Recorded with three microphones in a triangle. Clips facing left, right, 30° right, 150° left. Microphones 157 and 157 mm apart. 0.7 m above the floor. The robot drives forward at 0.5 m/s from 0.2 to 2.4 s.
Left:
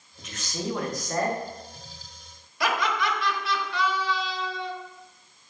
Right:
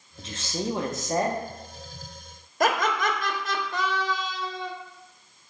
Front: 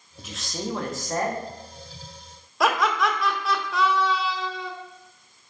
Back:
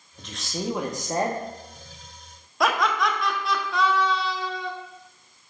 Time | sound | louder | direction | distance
0.2 | a man speaking | right 3 dB, back 1 dB | 105° right | 0.7 m
2.6 | laughter | right 3 dB, front 1 dB | 120° right | 0.8 m